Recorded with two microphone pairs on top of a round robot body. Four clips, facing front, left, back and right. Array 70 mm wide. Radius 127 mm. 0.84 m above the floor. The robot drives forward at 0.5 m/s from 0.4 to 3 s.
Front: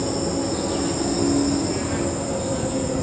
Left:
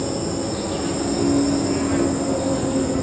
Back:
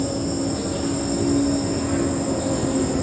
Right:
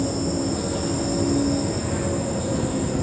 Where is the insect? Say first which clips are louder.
Even, even; 35° left, 0.9 m; by 3.0 s 135° left, 0.8 m.